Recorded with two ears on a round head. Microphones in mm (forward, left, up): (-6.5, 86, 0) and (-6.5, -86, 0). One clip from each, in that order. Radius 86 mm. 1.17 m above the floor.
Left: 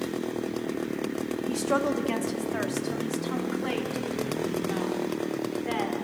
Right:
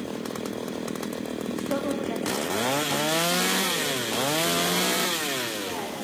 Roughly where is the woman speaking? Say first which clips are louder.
Left 3 dB; left.